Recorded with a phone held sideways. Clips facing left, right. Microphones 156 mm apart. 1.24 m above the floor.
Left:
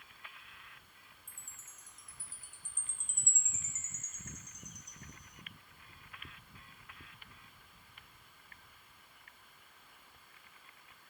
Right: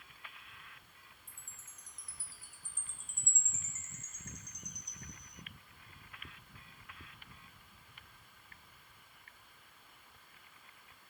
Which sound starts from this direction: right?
A chime, at 1.3 s.